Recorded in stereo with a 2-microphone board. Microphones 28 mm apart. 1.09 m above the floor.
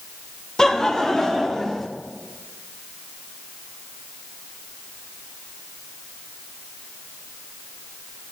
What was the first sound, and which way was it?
Laughter, 15° left (ahead or behind).